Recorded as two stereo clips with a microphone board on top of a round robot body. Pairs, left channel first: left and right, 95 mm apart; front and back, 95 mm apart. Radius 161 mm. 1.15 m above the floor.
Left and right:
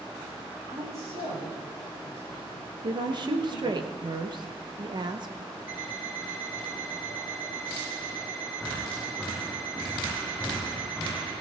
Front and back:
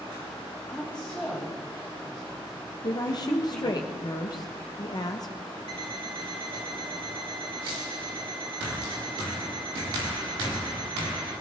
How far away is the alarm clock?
About 5.5 m.